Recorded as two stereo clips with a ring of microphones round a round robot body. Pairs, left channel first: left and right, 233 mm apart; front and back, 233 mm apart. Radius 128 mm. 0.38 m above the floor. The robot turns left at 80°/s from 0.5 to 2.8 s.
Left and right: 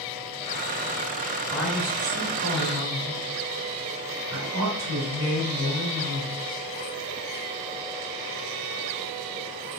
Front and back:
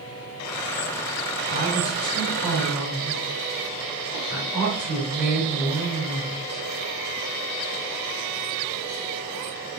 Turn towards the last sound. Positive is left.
turn(degrees=-100)